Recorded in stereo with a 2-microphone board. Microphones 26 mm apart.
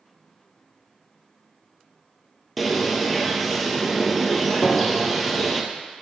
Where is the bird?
Centre (ahead or behind), 0.9 m.